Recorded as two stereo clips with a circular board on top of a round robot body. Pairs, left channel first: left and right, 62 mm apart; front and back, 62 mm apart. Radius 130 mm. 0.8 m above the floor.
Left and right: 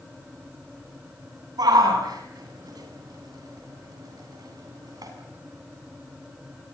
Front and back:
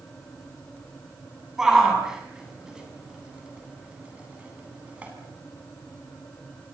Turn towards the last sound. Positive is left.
turn(degrees=-110)